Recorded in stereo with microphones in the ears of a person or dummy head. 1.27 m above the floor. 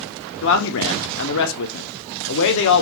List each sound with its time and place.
0.4 s a man speaking: 70° left (ahead or behind), 0.6 m